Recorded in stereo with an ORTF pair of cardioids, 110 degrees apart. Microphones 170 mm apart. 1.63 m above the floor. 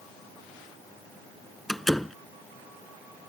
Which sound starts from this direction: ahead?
A door slam, at 1.7 s.